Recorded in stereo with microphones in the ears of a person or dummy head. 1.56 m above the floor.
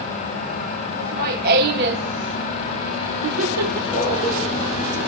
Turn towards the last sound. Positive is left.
turn(degrees=-40)  # may be behind; listen again after turning